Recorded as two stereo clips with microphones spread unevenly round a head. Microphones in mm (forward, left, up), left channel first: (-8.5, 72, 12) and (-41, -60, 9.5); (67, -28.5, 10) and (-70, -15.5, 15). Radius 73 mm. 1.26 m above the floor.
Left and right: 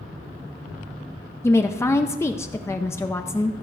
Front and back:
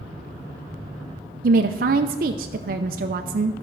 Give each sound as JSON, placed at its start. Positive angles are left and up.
{"t": 1.4, "sound": "a woman speaking", "azimuth_deg": 150, "distance_m": 0.5}